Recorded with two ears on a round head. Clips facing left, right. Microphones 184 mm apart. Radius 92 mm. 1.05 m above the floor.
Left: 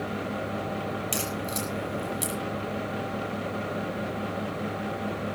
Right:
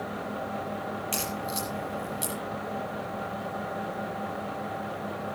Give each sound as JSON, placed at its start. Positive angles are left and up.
{"t": 1.1, "sound": "a crack", "side_deg": 20, "distance_m": 7.5}